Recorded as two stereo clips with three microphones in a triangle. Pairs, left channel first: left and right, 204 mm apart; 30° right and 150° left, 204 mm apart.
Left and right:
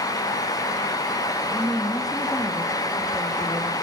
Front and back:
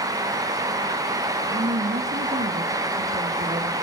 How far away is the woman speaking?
About 2 m.